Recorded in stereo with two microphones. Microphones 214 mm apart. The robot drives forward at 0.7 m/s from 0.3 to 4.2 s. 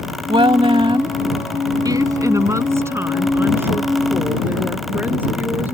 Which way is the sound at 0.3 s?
25° right (ahead or behind).